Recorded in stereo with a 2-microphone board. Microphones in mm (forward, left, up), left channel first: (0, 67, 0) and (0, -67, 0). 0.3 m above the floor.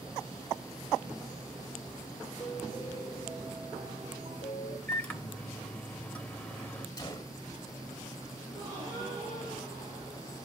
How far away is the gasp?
About 5.5 m.